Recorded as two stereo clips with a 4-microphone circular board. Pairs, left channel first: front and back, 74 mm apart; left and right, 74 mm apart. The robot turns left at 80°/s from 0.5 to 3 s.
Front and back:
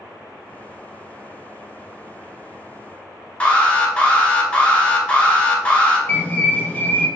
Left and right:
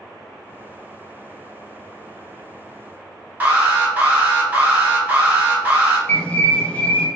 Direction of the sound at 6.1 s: 35° left.